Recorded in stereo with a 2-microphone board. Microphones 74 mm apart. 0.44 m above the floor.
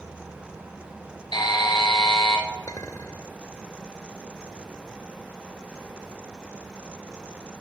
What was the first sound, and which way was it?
A buzzer, 70° left (ahead or behind).